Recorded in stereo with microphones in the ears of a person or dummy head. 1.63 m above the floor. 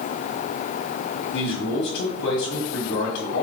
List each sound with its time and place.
1.3 s a man speaking: 75° left (ahead or behind), 1.7 m